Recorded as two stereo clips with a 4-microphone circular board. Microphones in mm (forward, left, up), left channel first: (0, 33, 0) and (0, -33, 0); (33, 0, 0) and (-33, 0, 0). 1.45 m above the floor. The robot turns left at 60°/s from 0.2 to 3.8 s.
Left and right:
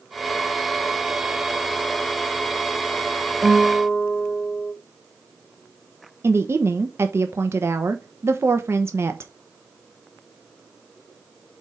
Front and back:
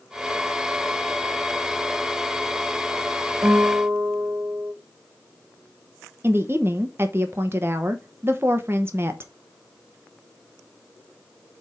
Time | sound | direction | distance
3.4 | a guitar | 170° right | 1.2 m
6.2 | a woman speaking | 135° right | 0.8 m